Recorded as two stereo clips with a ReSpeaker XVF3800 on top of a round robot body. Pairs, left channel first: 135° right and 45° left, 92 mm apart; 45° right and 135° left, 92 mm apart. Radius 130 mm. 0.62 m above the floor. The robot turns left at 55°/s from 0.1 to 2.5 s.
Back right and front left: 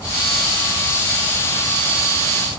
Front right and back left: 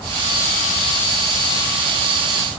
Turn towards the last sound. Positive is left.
No sound to turn to.